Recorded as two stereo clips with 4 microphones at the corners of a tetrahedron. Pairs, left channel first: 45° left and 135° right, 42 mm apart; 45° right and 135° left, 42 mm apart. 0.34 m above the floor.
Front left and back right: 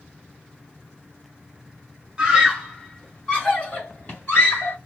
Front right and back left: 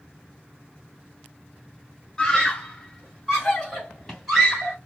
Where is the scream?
100° right, 1.1 m; by 4.8 s 50° left, 1.7 m.